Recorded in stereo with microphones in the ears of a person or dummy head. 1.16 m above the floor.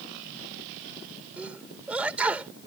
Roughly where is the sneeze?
Centre.